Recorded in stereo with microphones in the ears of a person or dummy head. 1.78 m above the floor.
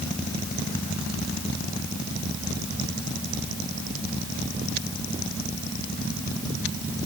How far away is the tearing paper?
I don't hear tearing paper.